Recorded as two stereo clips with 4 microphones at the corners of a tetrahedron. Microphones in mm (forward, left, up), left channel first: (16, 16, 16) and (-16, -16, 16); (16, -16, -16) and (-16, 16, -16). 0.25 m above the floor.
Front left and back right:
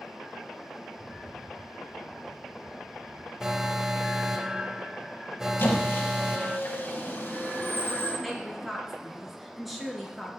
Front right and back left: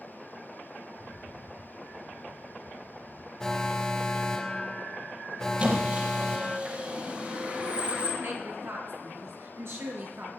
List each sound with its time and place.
0.9 s a rattle: 55° left, 0.9 m
3.4 s an alarm: 90° right, 0.6 m
5.6 s a squeak: 80° left, 4.5 m
8.2 s a woman speaking: 135° left, 3.5 m